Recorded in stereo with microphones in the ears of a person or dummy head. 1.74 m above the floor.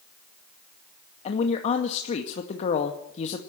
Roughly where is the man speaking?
Left.